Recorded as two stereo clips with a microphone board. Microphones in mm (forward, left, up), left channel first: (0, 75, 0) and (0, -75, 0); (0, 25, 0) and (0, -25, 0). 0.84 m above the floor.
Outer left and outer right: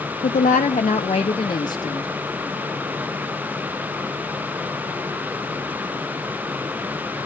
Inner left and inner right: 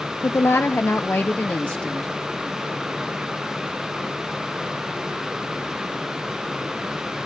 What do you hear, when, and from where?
0.2 s a woman speaking: 55° left (ahead or behind), 0.6 m; by 2.1 s 20° left (ahead or behind), 1.0 m